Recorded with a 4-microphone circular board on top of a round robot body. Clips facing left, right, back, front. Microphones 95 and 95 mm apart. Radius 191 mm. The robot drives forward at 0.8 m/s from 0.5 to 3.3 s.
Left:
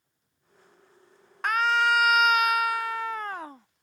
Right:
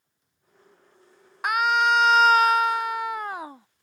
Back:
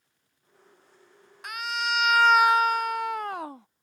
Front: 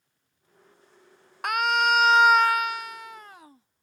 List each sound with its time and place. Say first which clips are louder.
1.4 s a scream: right 2 dB, front 8 dB; 15° right; by 3.7 s 165° right